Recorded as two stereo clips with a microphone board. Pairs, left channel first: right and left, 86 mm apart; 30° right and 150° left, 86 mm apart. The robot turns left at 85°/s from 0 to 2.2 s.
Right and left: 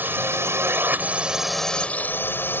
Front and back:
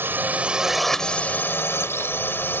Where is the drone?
130° left; by 2.6 s 55° right.